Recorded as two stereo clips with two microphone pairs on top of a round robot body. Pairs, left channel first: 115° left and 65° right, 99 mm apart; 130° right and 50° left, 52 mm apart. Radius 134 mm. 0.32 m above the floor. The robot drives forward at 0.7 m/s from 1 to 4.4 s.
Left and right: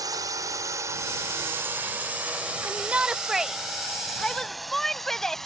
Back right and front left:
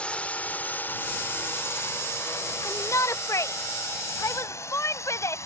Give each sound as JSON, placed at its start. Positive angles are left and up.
{"t": 0.0, "sound": "a drone", "azimuth_deg": -80}
{"t": 2.6, "sound": "a shout", "azimuth_deg": -135}